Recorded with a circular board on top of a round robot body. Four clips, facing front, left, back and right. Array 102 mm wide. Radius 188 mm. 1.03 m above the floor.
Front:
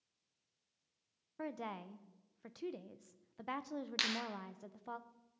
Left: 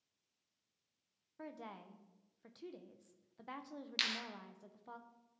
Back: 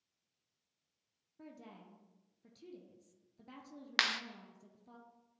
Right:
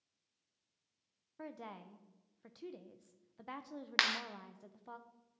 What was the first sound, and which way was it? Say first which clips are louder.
A woman speaking: right 2 dB, front 10 dB; 5° right.